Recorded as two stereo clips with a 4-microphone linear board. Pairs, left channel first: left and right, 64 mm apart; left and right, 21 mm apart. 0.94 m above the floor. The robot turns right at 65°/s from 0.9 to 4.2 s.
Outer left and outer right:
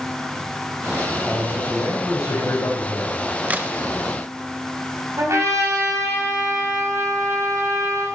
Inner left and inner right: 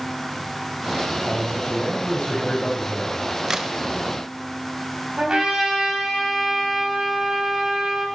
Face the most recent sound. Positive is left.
turn(degrees=-50)  # may be behind; listen again after turning